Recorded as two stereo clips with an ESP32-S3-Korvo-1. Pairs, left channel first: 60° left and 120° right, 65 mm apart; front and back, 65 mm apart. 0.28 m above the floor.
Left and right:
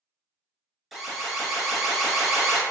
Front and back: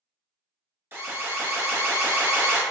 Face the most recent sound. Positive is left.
turn(degrees=155)